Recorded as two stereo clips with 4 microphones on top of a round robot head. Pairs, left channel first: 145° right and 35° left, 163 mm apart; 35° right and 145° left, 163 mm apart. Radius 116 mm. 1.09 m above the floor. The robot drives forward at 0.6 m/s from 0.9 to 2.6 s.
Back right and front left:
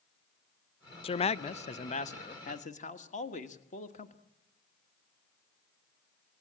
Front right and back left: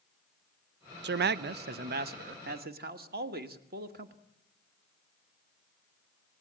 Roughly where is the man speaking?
Behind.